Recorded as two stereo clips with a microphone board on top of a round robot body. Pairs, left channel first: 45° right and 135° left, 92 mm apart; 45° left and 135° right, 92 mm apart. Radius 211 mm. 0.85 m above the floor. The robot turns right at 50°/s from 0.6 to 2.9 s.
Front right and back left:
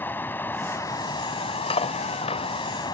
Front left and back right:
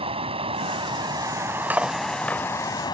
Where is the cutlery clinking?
60° right; by 2.4 s 25° right.